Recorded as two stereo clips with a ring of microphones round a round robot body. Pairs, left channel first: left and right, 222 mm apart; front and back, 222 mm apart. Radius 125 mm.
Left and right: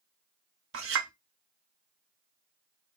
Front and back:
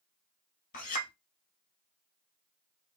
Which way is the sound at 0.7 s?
60° right.